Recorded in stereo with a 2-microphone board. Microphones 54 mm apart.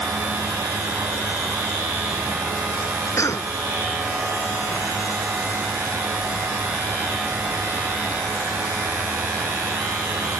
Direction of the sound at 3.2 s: 55° left (ahead or behind).